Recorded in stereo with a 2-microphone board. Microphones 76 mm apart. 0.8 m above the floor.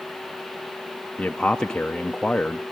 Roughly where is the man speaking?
Centre.